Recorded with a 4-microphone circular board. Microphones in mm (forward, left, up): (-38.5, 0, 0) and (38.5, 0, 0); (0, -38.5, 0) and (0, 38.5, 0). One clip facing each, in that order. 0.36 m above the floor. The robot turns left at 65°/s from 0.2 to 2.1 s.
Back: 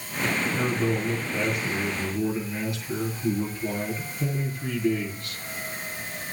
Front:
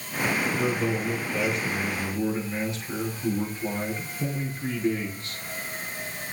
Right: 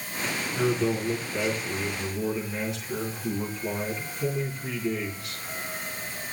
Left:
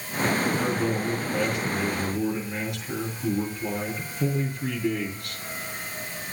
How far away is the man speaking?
About 6.5 m.